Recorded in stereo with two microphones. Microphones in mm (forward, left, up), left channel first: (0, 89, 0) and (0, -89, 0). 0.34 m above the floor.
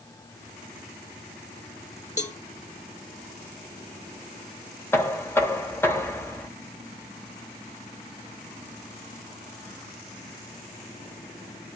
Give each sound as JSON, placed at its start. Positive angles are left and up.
{"t": 2.2, "sound": "a cowbell", "side_deg": 40, "distance_m": 0.6}
{"t": 4.9, "sound": "knocking", "side_deg": 15, "distance_m": 0.8}